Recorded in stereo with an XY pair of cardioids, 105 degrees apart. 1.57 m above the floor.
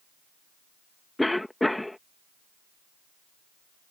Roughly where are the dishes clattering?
I don't hear dishes clattering.